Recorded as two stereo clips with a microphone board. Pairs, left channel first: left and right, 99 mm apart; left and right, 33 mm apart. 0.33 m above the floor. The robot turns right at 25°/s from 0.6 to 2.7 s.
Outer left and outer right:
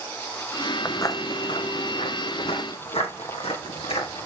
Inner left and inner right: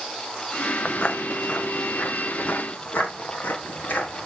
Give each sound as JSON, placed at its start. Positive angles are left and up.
{"t": 0.8, "sound": "footsteps", "side_deg": 25, "distance_m": 0.7}